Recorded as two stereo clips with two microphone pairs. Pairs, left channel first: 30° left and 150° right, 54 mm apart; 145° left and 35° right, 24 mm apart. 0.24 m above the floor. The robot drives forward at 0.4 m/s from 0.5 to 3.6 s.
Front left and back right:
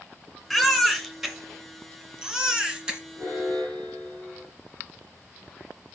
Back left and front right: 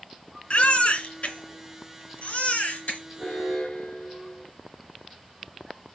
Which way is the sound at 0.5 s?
120° left.